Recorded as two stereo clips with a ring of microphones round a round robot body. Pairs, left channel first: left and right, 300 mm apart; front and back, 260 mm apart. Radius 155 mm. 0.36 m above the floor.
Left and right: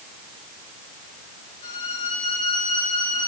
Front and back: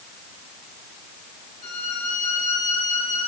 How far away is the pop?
I don't hear a pop.